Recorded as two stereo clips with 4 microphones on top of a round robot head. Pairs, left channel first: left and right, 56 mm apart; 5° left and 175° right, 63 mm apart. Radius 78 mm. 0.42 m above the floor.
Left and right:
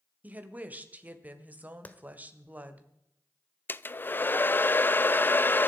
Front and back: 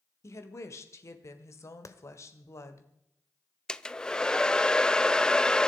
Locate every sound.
0.2 s a woman speaking: 30° right, 1.9 m
1.9 s a clap: 30° left, 1.4 m
3.7 s a hair dryer: 75° left, 0.6 m